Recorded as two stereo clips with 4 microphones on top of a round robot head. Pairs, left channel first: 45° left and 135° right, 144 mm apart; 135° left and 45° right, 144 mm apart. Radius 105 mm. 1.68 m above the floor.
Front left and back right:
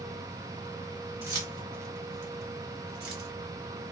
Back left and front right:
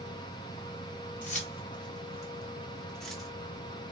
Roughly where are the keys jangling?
Behind left.